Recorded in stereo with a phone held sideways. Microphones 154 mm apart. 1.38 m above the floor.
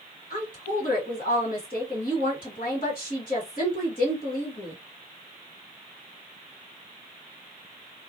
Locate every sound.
0.3 s a woman speaking: 60° left (ahead or behind), 1.6 m